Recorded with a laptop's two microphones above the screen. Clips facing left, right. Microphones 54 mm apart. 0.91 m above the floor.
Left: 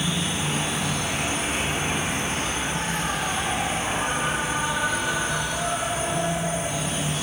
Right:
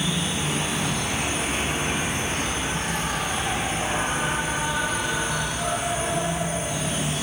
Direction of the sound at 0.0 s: Centre (ahead or behind).